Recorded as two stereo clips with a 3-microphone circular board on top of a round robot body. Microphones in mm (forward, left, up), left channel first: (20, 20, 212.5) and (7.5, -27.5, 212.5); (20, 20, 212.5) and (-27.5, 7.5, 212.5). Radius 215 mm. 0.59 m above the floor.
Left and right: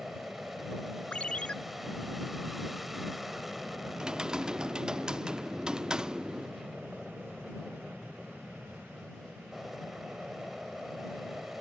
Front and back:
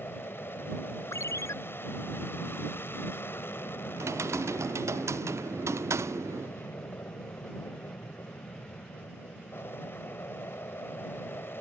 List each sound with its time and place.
0.0 s an aircraft: 15° right
1.1 s a ringtone: 10° left
4.0 s typing on a keyboard: straight behind